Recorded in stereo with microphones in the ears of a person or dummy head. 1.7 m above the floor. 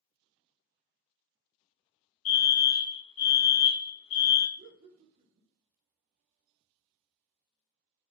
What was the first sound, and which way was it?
A fire alarm, 45° left (ahead or behind).